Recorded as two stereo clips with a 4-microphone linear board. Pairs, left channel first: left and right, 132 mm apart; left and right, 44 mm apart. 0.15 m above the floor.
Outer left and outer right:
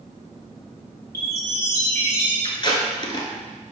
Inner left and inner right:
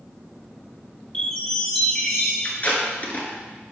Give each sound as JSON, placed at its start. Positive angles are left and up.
{"t": 1.1, "sound": "a chime", "side_deg": 20, "distance_m": 3.0}
{"t": 2.4, "sound": "tape being pulled", "side_deg": 35, "distance_m": 1.3}